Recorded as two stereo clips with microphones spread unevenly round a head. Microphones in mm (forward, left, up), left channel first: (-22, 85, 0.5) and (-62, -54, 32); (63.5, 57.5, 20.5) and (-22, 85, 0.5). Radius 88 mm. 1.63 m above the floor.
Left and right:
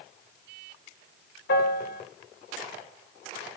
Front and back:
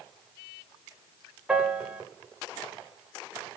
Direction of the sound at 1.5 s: 80° left.